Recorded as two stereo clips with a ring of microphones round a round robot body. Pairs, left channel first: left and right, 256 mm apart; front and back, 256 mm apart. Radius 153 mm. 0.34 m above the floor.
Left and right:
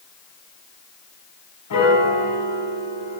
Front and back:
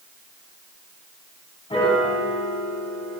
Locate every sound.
1.7 s a piano: 70° left, 4.5 m